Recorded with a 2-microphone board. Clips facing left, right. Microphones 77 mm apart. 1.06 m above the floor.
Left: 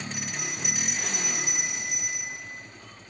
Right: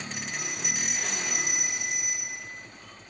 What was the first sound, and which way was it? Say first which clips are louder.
A bell: left 1 dB; 55° right (ahead or behind).